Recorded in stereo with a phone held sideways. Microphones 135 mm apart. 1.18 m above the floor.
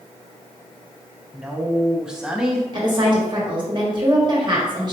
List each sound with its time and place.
1.3 s a woman speaking: 5° right (ahead or behind), 0.8 m
2.7 s a woman speaking: 35° right (ahead or behind), 1.3 m